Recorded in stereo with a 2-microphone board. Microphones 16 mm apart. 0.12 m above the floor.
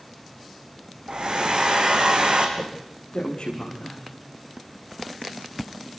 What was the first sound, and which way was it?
A hair dryer, 65° right (ahead or behind).